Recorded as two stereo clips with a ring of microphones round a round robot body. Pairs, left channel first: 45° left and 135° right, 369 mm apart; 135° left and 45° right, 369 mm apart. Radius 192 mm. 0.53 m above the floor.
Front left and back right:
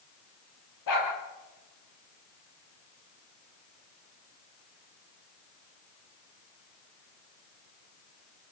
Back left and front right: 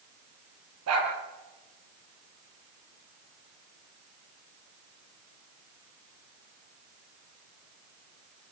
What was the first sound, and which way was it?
A dog barking, 5° left.